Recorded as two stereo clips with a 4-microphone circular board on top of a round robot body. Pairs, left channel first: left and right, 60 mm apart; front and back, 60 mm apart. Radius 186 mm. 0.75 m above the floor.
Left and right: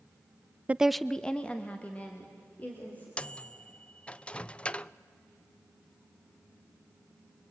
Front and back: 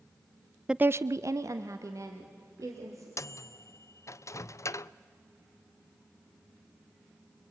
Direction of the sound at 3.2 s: 20° left.